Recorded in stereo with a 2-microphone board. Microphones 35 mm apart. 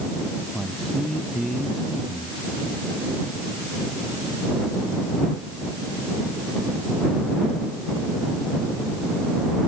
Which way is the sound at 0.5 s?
5° left (ahead or behind).